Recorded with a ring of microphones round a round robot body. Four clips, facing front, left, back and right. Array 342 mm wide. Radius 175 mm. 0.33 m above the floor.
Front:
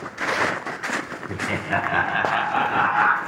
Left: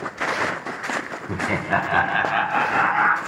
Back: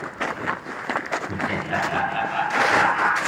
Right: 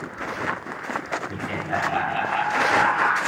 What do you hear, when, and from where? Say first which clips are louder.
1.3 s laughter: left 9 dB, front 4 dB; 95° left, 1.1 m; by 3.2 s 40° left, 1.6 m